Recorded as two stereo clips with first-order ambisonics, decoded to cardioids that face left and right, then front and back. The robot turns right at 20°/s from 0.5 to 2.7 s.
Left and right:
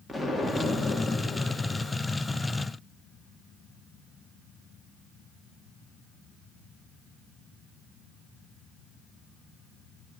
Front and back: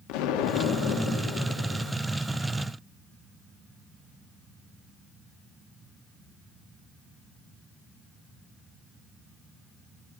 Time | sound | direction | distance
0.1 | an explosion | straight ahead | 1.3 m